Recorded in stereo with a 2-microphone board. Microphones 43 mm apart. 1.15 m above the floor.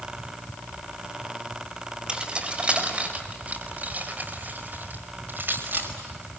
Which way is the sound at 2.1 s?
20° right (ahead or behind).